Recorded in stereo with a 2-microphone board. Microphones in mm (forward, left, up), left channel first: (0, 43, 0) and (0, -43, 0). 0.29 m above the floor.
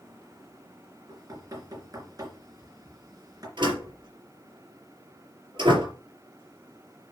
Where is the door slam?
65° right (ahead or behind), 4 m.